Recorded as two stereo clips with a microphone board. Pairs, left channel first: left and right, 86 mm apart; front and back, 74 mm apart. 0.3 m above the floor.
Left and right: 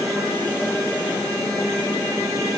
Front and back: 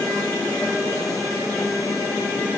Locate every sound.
Only background noise.